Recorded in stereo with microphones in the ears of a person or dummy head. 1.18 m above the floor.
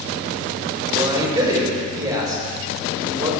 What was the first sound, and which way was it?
A man speaking, 15° right (ahead or behind).